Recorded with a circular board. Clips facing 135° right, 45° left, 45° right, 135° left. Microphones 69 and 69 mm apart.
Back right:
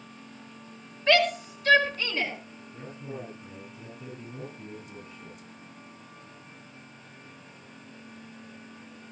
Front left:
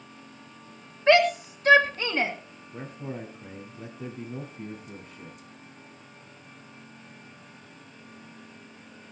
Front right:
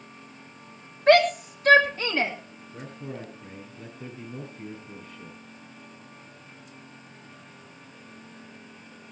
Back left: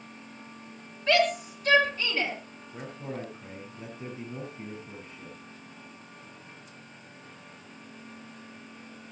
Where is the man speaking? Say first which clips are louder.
Front left 3 dB, back left 1 dB; 70° left, 9 m.